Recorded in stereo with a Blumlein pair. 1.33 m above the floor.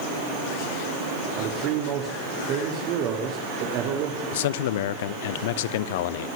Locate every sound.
1.4 s a man speaking: 40° right, 3 m
4.3 s a man speaking: 55° left, 1.0 m